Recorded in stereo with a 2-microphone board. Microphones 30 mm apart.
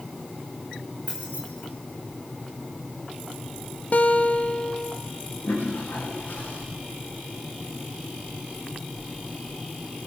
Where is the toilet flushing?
75° left (ahead or behind), 9.5 m.